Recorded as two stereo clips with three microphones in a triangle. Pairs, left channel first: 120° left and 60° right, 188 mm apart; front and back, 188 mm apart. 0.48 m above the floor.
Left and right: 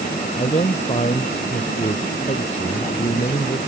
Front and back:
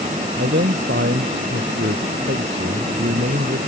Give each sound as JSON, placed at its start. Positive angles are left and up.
{"t": 0.4, "sound": "a man speaking", "azimuth_deg": 175}